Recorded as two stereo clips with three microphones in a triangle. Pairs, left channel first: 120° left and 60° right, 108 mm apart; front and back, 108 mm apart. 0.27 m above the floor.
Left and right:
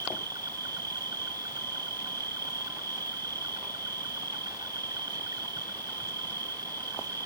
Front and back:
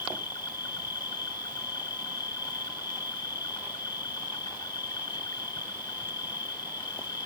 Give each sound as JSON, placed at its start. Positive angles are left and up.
{"t": 0.0, "sound": "an insect", "azimuth_deg": -25}